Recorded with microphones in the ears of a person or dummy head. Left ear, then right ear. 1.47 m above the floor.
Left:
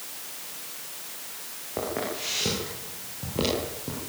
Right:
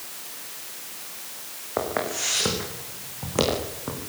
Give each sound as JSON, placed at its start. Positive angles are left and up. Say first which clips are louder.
{"t": 1.8, "sound": "footsteps", "louder": "right 4 dB", "side_deg": -40, "distance_m": 7.0}